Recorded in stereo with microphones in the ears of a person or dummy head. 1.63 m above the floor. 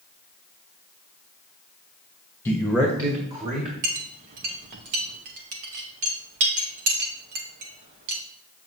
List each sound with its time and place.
2.5 s a man speaking: 15° left (ahead or behind), 0.9 m; by 3.7 s 40° right (ahead or behind), 2 m
3.8 s a clink: 30° right (ahead or behind), 1.0 m